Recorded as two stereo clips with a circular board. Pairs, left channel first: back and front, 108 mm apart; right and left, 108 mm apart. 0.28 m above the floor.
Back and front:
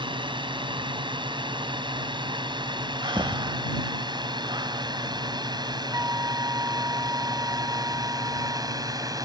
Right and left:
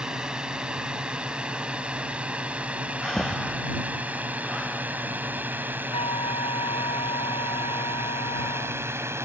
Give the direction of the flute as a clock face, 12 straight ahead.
2 o'clock.